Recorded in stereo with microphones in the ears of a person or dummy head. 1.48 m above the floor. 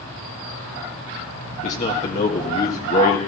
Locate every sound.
1.6 s a man speaking: 45° left (ahead or behind), 1.7 m